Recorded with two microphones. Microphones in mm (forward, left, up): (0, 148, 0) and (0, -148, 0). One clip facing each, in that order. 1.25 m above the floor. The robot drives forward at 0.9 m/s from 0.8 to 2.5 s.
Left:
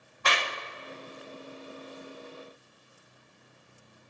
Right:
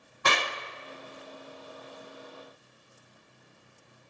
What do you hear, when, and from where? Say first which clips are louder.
0.2 s a clap: right 2 dB; 55° right (ahead or behind), 0.5 m